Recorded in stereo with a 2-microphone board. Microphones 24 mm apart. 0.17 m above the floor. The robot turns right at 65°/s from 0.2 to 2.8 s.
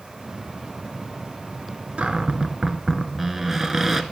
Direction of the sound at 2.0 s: 65° right.